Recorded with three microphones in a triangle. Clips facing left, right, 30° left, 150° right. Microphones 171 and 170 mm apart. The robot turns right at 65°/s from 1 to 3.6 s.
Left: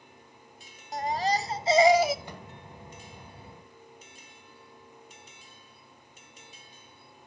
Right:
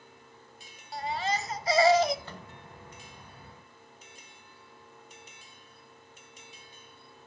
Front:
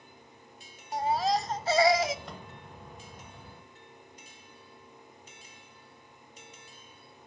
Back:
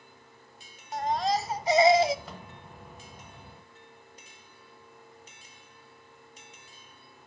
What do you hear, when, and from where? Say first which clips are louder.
0.9 s a baby crying: left 4 dB, even; 100° left, 0.5 m; by 2.1 s 175° left, 0.5 m
2.2 s a microwave: left 2 dB, even; 125° left, 1.1 m; by 2.5 s 140° left, 1.1 m